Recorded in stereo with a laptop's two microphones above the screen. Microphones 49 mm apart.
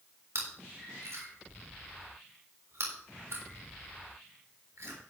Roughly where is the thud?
I don't hear a thud.